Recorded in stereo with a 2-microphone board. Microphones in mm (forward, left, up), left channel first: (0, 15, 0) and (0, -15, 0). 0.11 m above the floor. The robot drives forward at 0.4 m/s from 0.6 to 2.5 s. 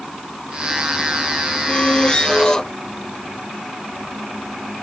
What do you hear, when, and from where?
1.6 s a squeak: 30° left (ahead or behind); by 2.7 s 25° left (ahead or behind)